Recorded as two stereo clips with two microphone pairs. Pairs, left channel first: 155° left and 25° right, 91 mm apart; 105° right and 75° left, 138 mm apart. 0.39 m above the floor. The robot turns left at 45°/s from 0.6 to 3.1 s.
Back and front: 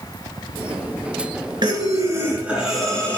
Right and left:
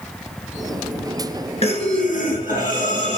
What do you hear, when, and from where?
1.6 s breathing: 65° right, 2.5 m; by 3.2 s 130° right, 2.5 m